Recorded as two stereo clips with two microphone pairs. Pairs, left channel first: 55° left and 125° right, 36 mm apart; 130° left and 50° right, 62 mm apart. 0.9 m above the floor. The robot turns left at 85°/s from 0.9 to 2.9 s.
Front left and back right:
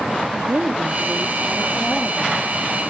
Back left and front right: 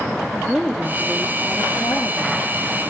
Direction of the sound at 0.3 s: 145° right.